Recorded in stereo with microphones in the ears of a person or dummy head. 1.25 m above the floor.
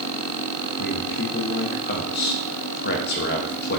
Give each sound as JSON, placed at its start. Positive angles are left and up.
{"t": 0.8, "sound": "a man speaking", "side_deg": 45, "distance_m": 0.6}